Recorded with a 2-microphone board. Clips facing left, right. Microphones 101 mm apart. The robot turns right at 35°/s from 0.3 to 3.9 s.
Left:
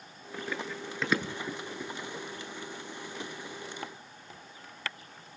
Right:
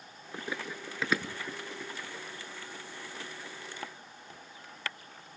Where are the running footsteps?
20° right (ahead or behind), 1.5 m; by 2.2 s 20° left (ahead or behind), 1.5 m.